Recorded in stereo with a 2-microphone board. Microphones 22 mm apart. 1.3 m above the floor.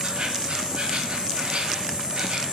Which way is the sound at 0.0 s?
50° right (ahead or behind).